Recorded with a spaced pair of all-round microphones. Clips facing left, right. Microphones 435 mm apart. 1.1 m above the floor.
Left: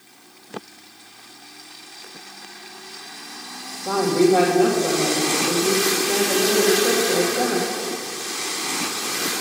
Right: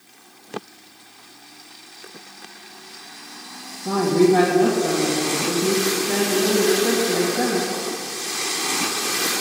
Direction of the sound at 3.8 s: 30° right (ahead or behind).